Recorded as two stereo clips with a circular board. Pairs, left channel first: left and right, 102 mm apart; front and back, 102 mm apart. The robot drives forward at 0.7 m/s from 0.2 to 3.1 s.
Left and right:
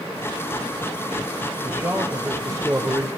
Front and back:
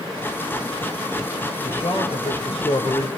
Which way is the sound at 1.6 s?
20° right.